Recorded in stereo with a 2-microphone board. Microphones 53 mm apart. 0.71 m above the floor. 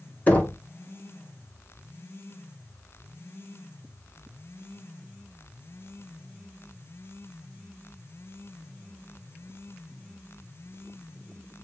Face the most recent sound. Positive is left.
turn(degrees=30)  # may be behind; listen again after turning